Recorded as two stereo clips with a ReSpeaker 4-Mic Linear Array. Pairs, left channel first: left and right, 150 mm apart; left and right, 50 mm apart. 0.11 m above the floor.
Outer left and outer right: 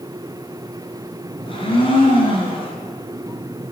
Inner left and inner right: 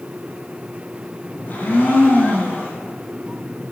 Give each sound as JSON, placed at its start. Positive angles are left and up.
{"t": 1.4, "sound": "a blender", "side_deg": 40, "distance_m": 1.5}